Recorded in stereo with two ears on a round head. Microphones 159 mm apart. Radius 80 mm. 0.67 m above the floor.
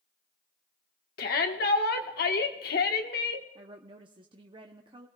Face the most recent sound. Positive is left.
turn(degrees=-30)  # may be behind; listen again after turning